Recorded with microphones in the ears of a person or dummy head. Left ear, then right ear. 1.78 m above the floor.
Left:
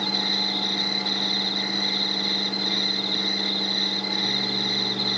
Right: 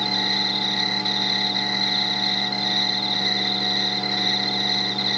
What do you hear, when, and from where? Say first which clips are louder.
0.0 s an insect: right 2 dB; 55° right (ahead or behind), 2 m